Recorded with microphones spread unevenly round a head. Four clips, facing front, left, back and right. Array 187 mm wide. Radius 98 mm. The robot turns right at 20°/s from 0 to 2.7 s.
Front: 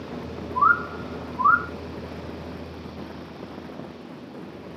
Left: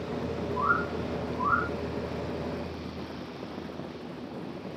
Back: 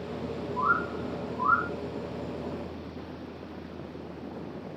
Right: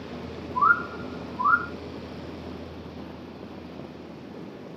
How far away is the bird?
About 1.8 m.